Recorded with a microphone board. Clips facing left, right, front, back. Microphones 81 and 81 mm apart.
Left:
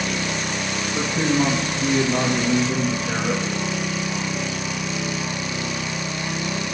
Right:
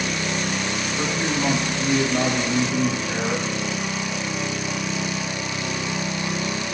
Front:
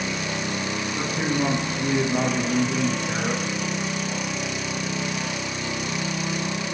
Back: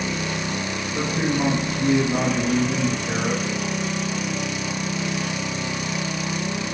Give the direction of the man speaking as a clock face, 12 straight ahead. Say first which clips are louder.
Left 5 dB, back 3 dB; 8 o'clock.